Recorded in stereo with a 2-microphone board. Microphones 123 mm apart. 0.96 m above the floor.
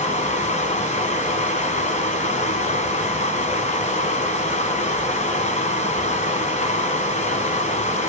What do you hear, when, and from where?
0.0 s running water: 65° left (ahead or behind), 2 m